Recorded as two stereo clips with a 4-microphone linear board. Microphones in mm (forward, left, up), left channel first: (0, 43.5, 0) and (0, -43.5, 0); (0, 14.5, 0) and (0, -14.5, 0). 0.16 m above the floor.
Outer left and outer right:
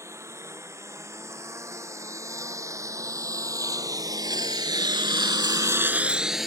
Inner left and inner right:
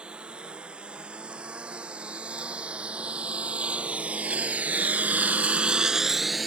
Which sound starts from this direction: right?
A lawn mower, at 0.0 s.